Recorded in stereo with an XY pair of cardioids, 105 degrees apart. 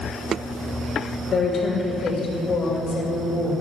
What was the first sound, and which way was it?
A woman speaking, 40° left.